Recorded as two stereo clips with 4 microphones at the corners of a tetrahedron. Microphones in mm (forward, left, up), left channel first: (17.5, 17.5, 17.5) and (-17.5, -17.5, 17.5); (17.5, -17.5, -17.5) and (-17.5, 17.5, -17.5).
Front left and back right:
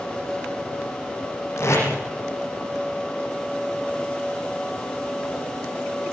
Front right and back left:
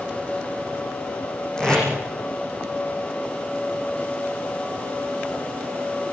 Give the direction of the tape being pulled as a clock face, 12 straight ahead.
11 o'clock.